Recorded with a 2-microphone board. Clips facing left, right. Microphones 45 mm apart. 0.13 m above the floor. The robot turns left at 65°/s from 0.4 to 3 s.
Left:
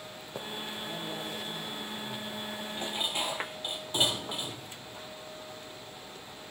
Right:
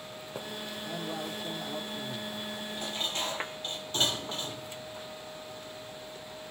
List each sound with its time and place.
0.8 s a man speaking: 10° right, 6.5 m; by 2.5 s 115° right, 6.5 m
2.8 s dishes clattering: 30° left (ahead or behind), 2.5 m; by 4.7 s 15° left (ahead or behind), 2.5 m